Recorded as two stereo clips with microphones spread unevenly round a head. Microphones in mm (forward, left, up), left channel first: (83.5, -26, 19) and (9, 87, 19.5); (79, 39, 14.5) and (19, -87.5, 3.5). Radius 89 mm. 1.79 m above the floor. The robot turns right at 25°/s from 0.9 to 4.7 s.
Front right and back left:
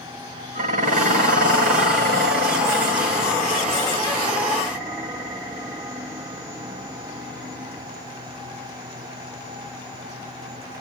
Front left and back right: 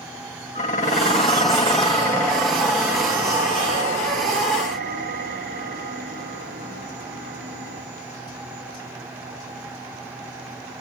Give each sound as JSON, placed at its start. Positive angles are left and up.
{"t": 0.6, "sound": "dishes clattering", "azimuth_deg": 110, "distance_m": 1.9}